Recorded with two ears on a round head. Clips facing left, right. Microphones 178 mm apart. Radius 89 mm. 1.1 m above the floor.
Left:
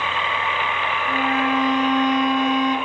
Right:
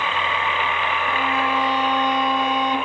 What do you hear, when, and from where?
1.1 s a violin: 30° right (ahead or behind), 1.1 m